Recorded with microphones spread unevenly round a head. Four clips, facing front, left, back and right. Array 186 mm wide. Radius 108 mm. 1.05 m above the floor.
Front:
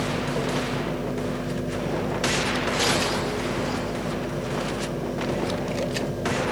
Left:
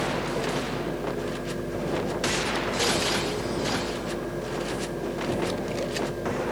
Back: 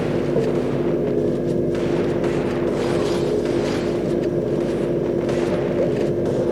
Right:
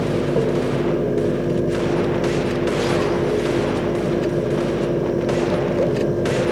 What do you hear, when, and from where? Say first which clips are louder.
0.0 s a fan: right 8 dB, back 7 dB; 145° right